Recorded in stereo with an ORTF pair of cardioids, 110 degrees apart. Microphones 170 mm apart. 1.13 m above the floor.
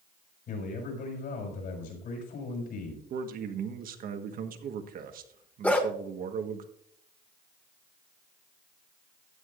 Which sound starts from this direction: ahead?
A dog barking, at 5.6 s.